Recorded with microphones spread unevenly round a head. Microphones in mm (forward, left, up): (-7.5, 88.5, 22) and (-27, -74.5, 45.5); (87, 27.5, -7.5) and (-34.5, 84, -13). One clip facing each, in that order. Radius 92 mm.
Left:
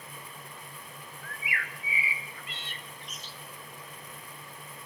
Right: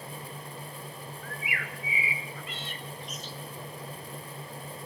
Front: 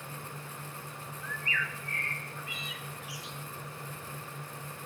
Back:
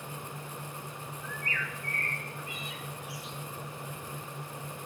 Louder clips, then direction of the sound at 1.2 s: Even, front 1 dB; 75° right.